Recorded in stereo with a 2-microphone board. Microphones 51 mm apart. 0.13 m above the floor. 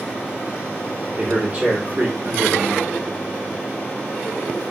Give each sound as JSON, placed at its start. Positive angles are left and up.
{"t": 1.2, "sound": "a man speaking", "side_deg": -30, "distance_m": 1.2}